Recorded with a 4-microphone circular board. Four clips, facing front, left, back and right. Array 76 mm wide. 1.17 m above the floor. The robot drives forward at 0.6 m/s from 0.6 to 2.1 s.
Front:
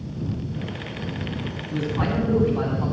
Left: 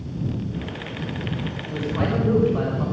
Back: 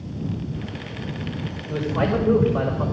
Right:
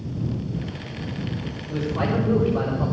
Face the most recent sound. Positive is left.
turn(degrees=175)